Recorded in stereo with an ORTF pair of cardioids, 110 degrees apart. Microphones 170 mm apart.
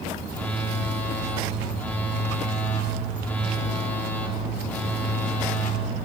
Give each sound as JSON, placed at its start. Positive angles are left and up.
{"t": 0.3, "sound": "a phone buzzing", "azimuth_deg": 10, "distance_m": 1.0}